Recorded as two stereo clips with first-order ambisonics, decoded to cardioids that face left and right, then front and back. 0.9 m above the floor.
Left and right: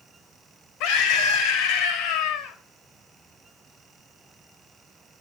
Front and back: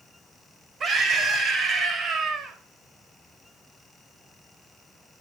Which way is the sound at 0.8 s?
115° left.